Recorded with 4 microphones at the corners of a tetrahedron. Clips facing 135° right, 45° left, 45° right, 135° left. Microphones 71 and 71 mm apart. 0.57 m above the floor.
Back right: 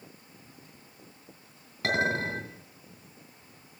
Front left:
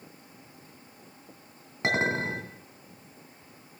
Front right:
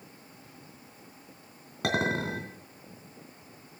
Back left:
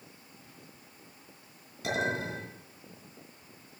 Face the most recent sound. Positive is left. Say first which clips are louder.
# front left 1 dB, front right 3 dB
turn(degrees=-25)